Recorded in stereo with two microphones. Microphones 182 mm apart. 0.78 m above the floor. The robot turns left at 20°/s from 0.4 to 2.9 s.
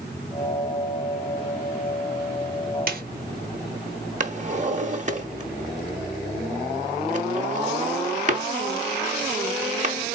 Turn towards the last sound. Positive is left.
turn(degrees=-40)  # may be behind; listen again after turning